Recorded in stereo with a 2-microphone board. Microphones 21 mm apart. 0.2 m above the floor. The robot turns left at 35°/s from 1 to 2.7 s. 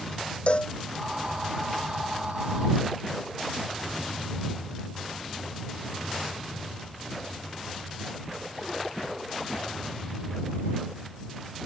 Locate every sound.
0.5 s a cowbell: 55° left (ahead or behind)